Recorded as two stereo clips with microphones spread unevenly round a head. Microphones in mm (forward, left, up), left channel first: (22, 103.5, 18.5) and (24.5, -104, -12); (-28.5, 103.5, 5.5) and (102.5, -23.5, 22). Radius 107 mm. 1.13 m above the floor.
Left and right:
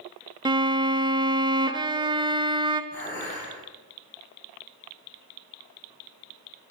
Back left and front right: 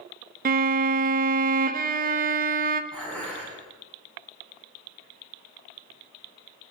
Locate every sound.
0.5 s a violin: 15° right, 0.5 m
2.9 s dishes clattering: 50° left, 5 m